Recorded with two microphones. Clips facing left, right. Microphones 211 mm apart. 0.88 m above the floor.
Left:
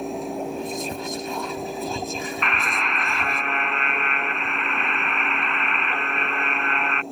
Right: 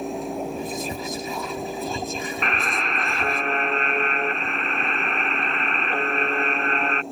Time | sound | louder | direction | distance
0.6 | whispering | even | centre (ahead or behind) | ?
2.4 | a buzzer | right 1 dB | 35° right (ahead or behind) | ?